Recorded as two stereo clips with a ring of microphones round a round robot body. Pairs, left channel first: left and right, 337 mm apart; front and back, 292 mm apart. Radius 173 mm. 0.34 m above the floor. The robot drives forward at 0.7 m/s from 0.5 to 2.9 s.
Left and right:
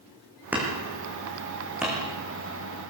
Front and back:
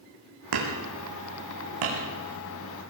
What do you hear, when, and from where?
0.5 s hammering: 175° right, 5.5 m